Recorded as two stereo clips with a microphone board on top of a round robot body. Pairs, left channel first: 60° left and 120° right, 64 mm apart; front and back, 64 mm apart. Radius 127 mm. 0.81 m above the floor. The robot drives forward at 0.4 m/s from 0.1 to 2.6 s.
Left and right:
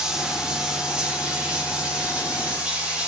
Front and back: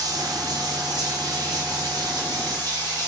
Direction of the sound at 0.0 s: 160° left.